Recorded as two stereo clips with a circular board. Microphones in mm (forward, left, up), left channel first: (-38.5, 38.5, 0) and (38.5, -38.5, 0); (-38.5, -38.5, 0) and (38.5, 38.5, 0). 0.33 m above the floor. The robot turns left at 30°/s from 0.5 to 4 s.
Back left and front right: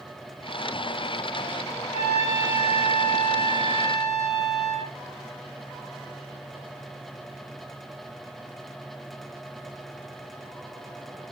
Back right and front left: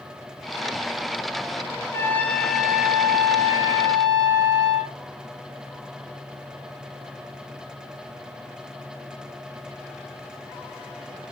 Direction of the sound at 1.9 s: 160° left.